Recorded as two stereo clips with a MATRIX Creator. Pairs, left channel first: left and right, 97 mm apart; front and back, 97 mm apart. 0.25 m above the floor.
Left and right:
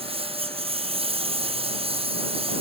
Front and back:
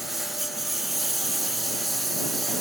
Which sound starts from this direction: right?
A lawn mower, at 0.0 s.